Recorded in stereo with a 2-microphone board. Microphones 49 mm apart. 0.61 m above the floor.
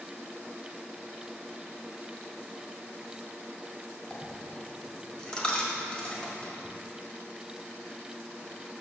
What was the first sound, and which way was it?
A dropped coin, 20° left (ahead or behind).